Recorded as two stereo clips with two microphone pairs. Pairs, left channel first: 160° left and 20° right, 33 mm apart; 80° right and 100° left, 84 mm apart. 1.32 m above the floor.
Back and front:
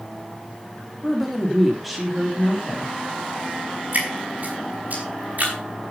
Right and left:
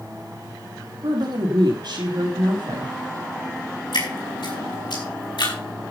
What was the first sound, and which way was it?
A woman speaking, 70° left.